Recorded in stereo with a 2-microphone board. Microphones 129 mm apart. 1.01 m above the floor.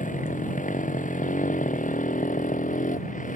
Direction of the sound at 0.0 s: 85° left.